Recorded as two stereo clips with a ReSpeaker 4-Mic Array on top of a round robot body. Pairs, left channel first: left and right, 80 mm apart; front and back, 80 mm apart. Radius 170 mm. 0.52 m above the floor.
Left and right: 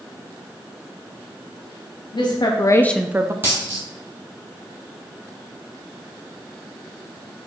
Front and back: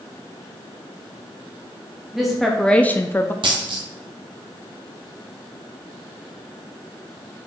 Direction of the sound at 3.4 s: 155° right.